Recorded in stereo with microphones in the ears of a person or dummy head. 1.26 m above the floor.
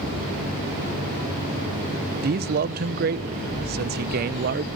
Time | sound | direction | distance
2.2 | a man speaking | 55° right (ahead or behind) | 0.5 m